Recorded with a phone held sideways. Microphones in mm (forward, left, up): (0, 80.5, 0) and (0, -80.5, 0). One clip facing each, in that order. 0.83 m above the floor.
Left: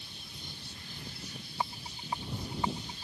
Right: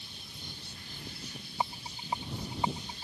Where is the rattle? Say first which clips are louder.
Right 2 dB; 20° right (ahead or behind).